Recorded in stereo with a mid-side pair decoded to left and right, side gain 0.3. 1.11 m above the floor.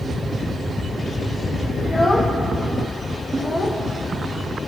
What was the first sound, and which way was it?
A child speaking, 40° left.